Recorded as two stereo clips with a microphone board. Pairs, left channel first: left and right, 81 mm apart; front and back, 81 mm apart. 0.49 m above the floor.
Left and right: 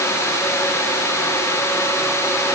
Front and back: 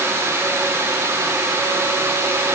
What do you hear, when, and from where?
Only background noise.